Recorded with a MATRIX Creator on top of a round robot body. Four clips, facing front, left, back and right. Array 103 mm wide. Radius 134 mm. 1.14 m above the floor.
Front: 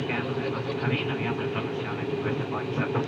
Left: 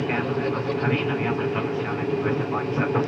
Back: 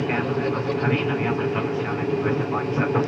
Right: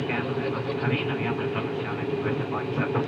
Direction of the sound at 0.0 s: 155° left.